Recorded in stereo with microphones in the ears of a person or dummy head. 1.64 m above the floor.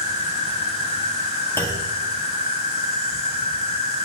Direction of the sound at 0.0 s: 45° left (ahead or behind).